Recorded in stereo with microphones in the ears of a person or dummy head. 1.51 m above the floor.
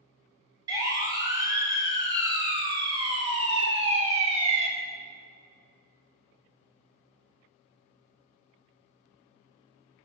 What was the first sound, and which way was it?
A siren, 20° right (ahead or behind).